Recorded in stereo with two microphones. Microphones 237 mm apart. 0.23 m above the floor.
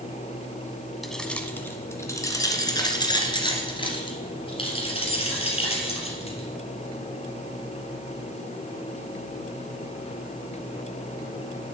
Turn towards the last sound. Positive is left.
turn(degrees=25)  # may be behind; listen again after turning